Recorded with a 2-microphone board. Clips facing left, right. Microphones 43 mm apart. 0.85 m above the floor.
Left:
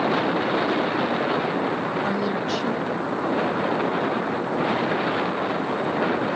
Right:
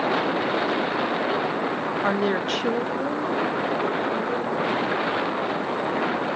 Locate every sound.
2.0 s a woman speaking: 30° right (ahead or behind), 0.6 m; by 4.9 s 60° right (ahead or behind), 3.5 m